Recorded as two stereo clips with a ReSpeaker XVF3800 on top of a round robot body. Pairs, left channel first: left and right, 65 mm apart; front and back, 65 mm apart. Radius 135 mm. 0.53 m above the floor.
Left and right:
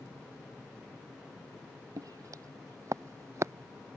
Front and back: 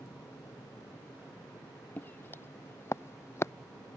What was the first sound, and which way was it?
Footsteps, 60° right.